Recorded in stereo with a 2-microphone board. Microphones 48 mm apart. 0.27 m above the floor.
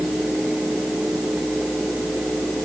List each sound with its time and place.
Only background noise.